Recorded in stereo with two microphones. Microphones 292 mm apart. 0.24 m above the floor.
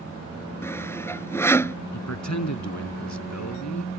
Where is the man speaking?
65° left (ahead or behind).